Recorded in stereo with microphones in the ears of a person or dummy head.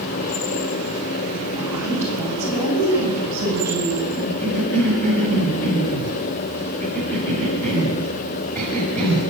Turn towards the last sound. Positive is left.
turn(degrees=10)  # may be behind; listen again after turning